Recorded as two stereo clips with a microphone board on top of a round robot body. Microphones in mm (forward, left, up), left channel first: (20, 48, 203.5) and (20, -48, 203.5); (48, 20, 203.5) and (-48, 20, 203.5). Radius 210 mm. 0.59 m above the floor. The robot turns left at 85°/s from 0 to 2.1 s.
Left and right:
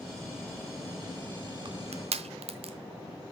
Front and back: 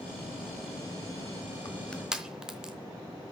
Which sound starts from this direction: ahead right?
Crushing, at 1.6 s.